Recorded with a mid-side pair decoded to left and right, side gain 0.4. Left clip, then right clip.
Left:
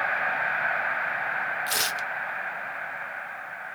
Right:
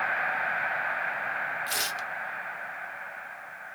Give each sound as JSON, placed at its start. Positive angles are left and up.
{"t": 1.7, "sound": "tearing paper", "azimuth_deg": 35, "distance_m": 0.7}